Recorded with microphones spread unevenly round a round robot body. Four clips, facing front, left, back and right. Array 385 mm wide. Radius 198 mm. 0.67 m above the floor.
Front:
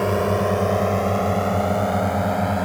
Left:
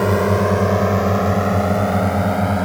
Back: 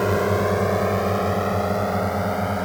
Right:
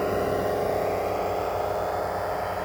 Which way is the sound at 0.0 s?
80° left.